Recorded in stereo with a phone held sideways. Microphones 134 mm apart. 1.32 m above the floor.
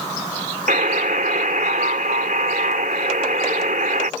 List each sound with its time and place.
0.7 s a buzzer: 75° right (ahead or behind)